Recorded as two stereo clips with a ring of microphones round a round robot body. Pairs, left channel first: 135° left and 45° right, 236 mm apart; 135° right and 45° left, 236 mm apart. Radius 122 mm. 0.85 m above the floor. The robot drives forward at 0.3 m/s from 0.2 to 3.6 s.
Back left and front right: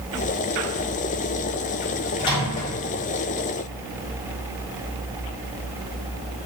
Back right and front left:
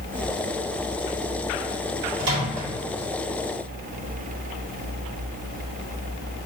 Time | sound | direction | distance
2.2 | a microwave | 65° left | 1.9 m